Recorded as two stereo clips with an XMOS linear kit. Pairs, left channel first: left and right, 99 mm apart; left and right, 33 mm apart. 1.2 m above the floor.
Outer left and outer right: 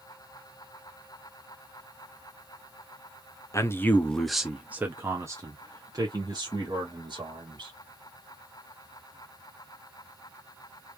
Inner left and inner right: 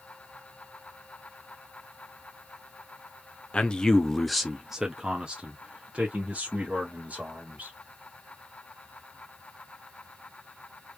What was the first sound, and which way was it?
A man speaking, 30° left (ahead or behind).